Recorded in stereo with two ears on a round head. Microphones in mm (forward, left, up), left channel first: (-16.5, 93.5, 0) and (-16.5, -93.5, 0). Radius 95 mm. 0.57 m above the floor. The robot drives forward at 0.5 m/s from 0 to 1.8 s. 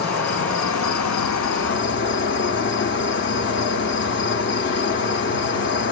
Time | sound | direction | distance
0.0 | an insect | 45° left (ahead or behind) | 0.9 m